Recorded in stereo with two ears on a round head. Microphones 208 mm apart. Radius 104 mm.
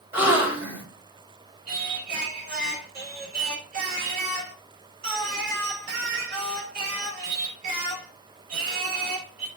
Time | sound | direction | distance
0.1 | a gasp | 10° right (ahead or behind) | 3.5 m
1.7 | singing | 40° right (ahead or behind) | 5.5 m